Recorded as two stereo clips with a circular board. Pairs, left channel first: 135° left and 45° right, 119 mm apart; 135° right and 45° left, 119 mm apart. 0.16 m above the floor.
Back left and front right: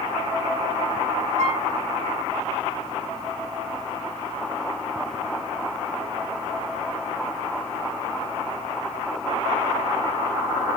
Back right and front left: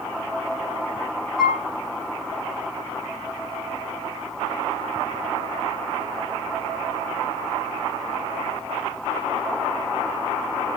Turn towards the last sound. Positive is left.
turn(degrees=-45)